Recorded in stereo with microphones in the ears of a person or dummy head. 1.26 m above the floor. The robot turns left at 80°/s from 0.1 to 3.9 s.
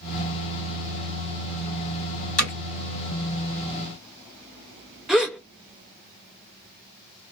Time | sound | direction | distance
2.4 | hammering | 45° left (ahead or behind) | 1.5 m
5.1 | a gasp | centre (ahead or behind) | 0.5 m